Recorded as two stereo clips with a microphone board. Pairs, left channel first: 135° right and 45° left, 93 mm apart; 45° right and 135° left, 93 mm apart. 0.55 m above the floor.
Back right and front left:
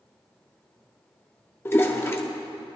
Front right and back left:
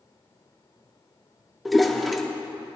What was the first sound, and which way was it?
A toilet flushing, 135° right.